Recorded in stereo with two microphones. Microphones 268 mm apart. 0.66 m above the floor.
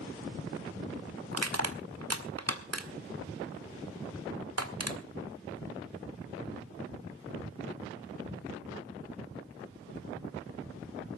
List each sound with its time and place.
1.3 s crushing: 65° right (ahead or behind), 1.7 m